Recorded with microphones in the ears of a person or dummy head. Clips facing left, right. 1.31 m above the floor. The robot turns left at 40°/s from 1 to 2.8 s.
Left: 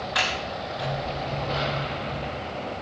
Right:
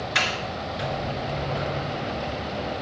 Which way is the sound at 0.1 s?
35° right (ahead or behind).